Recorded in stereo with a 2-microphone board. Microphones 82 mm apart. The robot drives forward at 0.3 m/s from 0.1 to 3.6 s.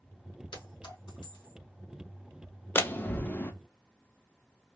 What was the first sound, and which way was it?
A clink, 75° left (ahead or behind).